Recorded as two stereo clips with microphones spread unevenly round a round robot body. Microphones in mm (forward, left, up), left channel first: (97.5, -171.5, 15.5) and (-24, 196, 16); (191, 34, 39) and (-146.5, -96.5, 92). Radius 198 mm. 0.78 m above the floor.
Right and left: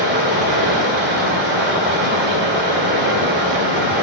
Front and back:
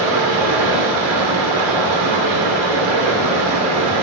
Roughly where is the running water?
Behind.